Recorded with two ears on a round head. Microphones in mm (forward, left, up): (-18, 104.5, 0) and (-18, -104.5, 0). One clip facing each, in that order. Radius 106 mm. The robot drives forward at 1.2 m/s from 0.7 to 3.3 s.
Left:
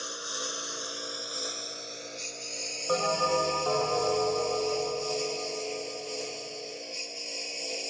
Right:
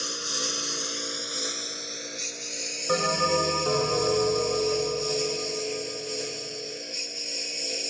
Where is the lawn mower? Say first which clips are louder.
Right 4 dB; 35° right (ahead or behind); by 7.9 s 20° right (ahead or behind).